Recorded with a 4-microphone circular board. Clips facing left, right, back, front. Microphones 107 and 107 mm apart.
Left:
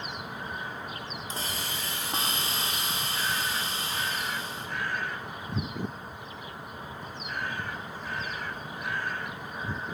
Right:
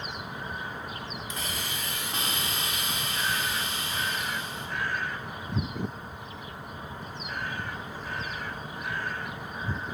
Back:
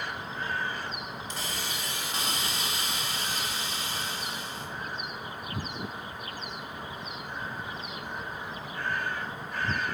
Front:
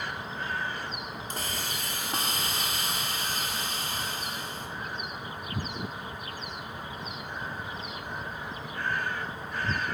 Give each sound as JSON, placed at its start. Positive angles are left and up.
{"t": 1.3, "sound": "a hiss", "azimuth_deg": 35, "distance_m": 1.5}